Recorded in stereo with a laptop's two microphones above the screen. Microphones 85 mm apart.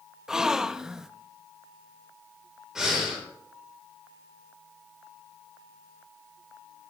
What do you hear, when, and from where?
0.3 s a gasp: 5° right (ahead or behind), 0.5 m
2.8 s breathing: 10° right (ahead or behind), 4.5 m